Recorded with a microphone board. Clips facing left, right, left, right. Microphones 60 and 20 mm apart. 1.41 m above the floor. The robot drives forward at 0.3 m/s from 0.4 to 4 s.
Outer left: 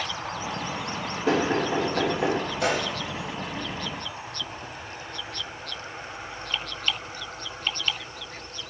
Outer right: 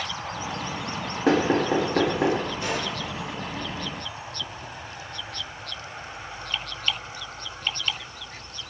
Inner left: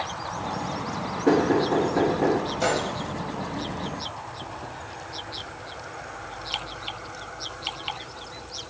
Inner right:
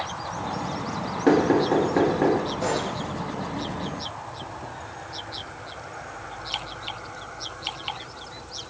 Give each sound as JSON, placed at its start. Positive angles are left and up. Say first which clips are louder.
{"t": 1.3, "sound": "knocking", "louder": "outer right 3 dB, inner right 1 dB", "side_deg": -70, "distance_m": 1.5}
{"t": 2.6, "sound": "a gunshot", "louder": "outer left 3 dB, inner left 1 dB", "side_deg": 75, "distance_m": 0.9}